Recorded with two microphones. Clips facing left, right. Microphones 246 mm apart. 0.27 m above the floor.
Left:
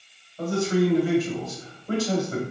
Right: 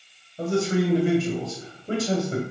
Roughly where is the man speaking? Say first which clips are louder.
Left 1 dB; right.